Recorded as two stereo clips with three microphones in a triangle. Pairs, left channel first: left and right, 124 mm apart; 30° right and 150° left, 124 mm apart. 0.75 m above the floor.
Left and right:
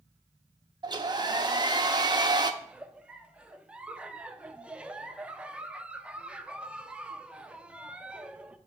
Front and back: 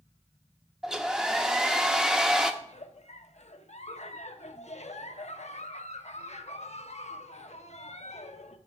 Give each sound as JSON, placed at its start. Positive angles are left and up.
{"t": 0.8, "sound": "a hair dryer", "azimuth_deg": -125, "distance_m": 0.7}
{"t": 2.6, "sound": "a giggle", "azimuth_deg": -10, "distance_m": 0.6}